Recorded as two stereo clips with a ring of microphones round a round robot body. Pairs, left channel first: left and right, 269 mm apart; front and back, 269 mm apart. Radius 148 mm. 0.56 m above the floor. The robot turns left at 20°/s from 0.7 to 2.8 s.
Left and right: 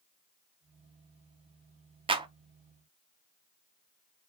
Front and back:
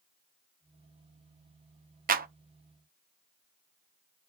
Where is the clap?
150° right, 0.6 m.